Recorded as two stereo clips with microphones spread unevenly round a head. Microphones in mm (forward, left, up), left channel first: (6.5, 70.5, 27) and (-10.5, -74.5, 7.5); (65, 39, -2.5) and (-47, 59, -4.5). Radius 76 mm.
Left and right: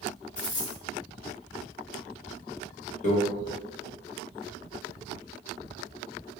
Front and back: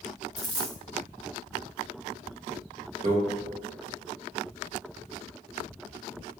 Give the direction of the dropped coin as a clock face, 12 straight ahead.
9 o'clock.